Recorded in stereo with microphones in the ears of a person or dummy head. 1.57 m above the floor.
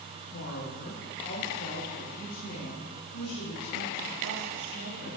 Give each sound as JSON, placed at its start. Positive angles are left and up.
{"t": 0.3, "sound": "a woman speaking", "side_deg": 65, "distance_m": 3.5}